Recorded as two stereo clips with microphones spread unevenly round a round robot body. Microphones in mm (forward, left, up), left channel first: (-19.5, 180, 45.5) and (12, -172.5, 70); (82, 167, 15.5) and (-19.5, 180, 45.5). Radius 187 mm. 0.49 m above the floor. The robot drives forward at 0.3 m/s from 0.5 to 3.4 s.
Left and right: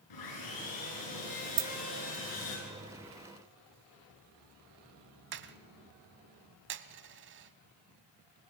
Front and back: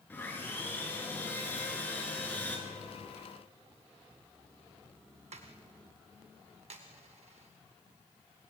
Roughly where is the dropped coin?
Right.